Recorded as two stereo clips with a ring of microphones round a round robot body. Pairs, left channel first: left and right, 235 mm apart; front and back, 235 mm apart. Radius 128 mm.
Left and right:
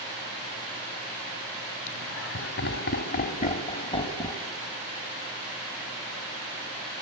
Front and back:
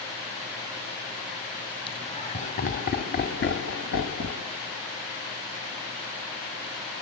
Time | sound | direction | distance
1.9 | laughter | 70° left | 2.5 m